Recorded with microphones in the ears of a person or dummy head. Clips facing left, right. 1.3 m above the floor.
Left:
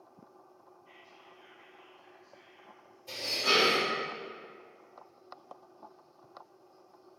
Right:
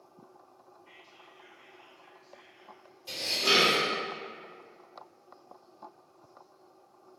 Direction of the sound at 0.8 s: 60° right (ahead or behind).